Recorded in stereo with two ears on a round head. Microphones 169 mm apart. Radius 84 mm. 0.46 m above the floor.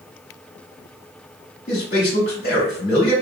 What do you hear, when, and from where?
1.7 s a man speaking: 40° left (ahead or behind), 1.2 m